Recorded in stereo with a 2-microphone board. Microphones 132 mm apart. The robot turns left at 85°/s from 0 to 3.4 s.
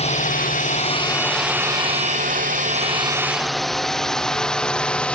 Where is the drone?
50° left (ahead or behind); by 5.2 s 10° left (ahead or behind).